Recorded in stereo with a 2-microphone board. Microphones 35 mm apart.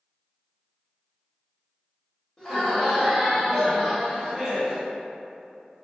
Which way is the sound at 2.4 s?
20° left (ahead or behind).